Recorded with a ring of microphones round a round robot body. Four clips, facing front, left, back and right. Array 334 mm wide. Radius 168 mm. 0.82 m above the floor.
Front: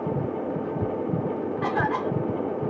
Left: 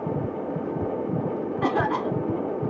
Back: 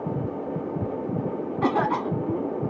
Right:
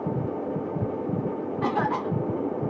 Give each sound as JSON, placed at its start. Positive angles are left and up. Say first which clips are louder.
{"t": 1.6, "sound": "a cough", "louder": "left 1 dB, back 3 dB", "azimuth_deg": 170, "distance_m": 1.9}